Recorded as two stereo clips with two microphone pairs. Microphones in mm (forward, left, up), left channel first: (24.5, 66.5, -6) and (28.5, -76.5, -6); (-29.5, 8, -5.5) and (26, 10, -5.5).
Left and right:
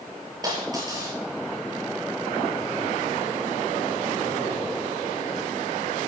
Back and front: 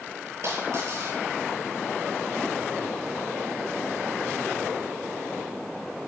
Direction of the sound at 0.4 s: 25° right.